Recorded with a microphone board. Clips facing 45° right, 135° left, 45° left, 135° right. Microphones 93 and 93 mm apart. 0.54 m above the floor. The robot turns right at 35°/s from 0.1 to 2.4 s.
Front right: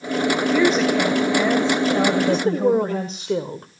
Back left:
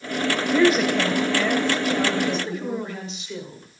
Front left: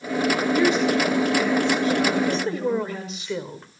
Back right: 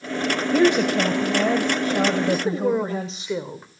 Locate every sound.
0.5 s a woman speaking: 145° right, 2 m; by 3.3 s 80° right, 2 m
2.3 s a woman speaking: 60° right, 2 m; by 3.7 s 55° right, 2 m